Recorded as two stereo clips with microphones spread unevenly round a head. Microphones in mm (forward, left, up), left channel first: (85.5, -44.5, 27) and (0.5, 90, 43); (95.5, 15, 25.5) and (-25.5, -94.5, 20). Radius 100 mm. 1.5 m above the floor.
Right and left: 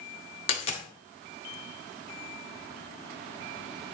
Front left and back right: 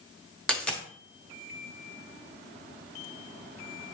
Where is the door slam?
I don't hear a door slam.